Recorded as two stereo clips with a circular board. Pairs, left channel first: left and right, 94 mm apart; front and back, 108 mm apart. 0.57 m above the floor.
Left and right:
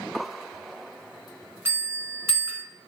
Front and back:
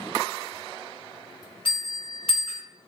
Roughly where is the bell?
Ahead right.